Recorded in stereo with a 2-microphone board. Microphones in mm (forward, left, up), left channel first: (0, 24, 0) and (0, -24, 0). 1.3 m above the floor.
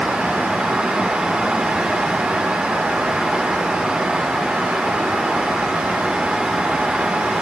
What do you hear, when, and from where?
Only background noise.